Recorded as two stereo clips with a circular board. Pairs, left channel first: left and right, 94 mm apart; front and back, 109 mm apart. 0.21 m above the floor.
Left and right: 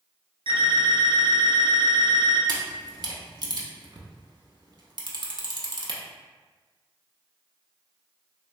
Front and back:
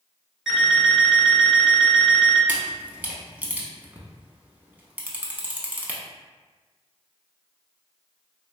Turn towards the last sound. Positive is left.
turn(degrees=-110)